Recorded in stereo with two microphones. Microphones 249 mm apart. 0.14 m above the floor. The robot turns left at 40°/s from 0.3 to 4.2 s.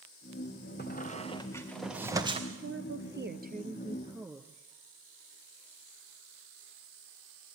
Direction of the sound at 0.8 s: 40° left (ahead or behind).